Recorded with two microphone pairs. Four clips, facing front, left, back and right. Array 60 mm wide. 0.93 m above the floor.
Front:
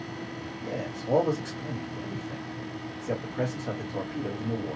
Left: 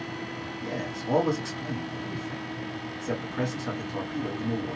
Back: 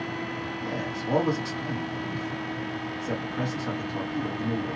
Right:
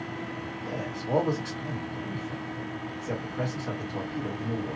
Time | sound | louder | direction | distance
0.6 | a man speaking | left 2 dB, even | 130° left | 2.0 m